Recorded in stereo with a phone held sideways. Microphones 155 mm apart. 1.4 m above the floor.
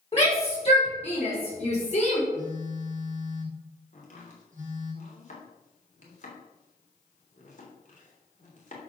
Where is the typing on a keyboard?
I don't hear typing on a keyboard.